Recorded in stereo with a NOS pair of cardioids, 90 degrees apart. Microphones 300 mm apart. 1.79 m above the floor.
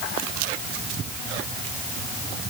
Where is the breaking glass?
I don't hear breaking glass.